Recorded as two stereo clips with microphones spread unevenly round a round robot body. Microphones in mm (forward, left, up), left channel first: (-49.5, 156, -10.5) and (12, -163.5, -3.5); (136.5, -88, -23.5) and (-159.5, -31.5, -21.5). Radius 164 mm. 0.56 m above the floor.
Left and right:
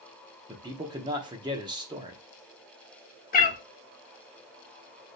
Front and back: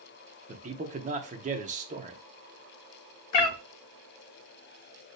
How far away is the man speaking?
About 0.9 m.